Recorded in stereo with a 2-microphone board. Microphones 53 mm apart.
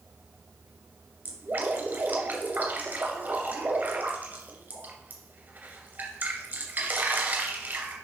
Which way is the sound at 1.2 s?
40° right (ahead or behind).